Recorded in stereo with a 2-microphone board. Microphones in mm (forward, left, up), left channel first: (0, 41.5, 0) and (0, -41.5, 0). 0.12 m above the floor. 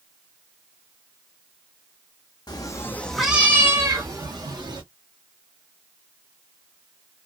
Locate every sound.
2.5 s a cat meowing: 55° left (ahead or behind), 0.6 m; by 4.8 s 55° right (ahead or behind), 1.3 m